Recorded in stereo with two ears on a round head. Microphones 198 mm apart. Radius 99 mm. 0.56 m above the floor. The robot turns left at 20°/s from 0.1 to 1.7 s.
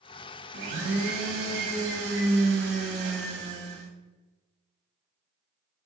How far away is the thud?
No thud in this recording.